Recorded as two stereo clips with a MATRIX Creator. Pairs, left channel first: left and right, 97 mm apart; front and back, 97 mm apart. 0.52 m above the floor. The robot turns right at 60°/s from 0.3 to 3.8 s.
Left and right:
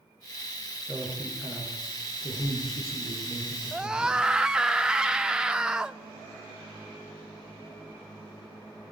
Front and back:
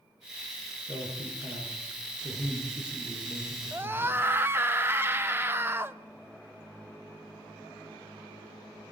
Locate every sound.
0.9 s a man speaking: 20° right, 10 m; by 4.2 s 155° left, 10 m
3.7 s a scream: 165° right, 0.7 m; by 6.0 s 160° right, 0.7 m